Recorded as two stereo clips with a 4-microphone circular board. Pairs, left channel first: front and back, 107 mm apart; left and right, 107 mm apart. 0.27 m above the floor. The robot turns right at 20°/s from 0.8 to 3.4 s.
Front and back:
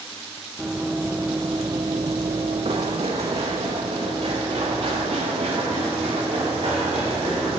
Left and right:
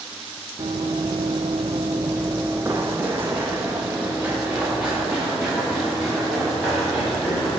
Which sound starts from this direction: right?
Running footsteps, at 0.6 s.